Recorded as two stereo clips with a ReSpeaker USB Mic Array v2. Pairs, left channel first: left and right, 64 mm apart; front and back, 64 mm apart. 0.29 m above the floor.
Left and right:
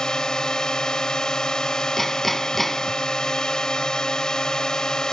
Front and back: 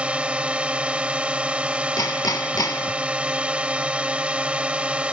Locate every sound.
0.0 s a drone: 150° left
2.0 s hammering: 5° left